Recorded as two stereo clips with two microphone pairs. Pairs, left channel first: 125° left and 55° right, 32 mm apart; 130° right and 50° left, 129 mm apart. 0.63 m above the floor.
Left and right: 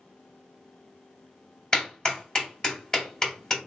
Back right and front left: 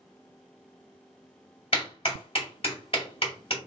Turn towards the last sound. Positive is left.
turn(degrees=-170)